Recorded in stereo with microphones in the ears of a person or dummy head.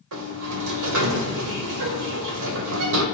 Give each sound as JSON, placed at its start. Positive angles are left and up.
{"t": 0.1, "sound": "a sliding door", "side_deg": -75, "distance_m": 1.2}